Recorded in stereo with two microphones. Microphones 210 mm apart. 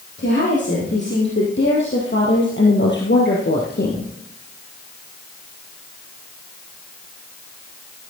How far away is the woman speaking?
About 4.5 m.